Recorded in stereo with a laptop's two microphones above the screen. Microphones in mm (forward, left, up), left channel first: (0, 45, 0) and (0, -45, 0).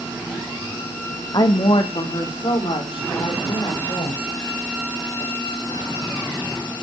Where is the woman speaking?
50° left (ahead or behind), 1.1 m; by 4.3 s 80° left, 4.5 m.